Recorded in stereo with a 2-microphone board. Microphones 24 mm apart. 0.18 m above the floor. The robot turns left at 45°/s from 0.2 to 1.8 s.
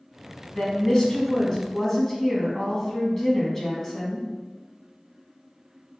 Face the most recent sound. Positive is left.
turn(degrees=15)  # may be behind; listen again after turning